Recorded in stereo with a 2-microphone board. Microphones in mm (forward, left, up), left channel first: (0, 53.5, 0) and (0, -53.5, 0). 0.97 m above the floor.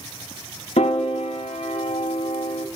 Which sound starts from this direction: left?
A piano, at 0.8 s.